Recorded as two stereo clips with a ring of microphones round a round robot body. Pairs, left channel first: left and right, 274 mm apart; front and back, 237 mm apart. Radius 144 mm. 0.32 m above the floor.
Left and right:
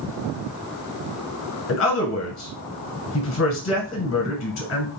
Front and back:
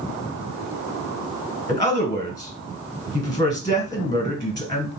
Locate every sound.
1.7 s a man speaking: 70° left, 1.7 m